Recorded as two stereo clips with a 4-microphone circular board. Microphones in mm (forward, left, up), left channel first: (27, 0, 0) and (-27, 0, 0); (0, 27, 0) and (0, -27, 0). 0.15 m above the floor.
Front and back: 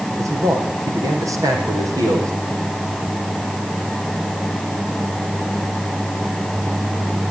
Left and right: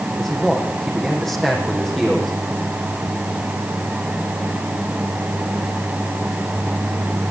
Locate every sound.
0.2 s a man speaking: 175° left, 6.5 m